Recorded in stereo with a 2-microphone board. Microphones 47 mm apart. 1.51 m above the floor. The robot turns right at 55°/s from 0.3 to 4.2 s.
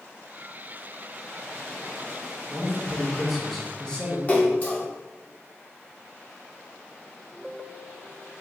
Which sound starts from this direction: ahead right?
A man speaking, at 2.5 s.